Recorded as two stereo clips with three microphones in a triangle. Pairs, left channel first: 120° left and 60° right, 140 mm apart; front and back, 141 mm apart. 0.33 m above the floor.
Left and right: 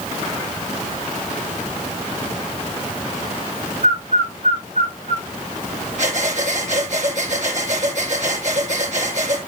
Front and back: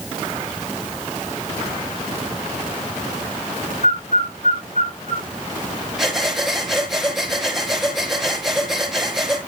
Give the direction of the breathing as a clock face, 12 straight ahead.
3 o'clock.